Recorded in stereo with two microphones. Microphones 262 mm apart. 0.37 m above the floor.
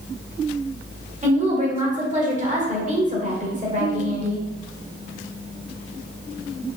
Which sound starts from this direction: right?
A woman speaking, at 1.2 s.